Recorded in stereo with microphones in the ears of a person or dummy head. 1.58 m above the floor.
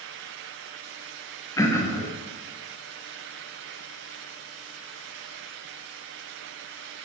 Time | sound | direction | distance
1.6 | throat clearing | 20° left (ahead or behind) | 0.9 m